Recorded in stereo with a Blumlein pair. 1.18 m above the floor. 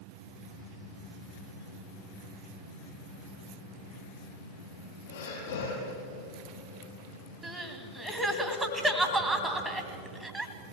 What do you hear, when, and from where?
5.1 s breathing: 65° left, 8 m
7.4 s crying: 5° right, 2 m